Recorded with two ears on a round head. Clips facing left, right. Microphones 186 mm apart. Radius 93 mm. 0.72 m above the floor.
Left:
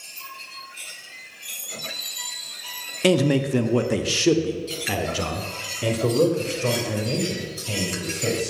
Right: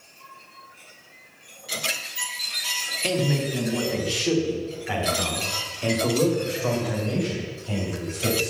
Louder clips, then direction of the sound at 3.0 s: Left 6 dB; 65° left (ahead or behind).